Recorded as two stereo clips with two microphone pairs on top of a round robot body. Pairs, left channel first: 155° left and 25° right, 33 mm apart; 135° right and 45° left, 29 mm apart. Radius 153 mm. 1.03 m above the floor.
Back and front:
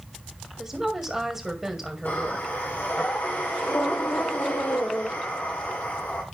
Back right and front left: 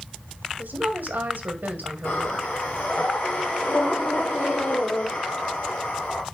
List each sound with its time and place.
0.6 s a woman speaking: 50° left, 2 m
2.0 s breathing: 160° right, 1.3 m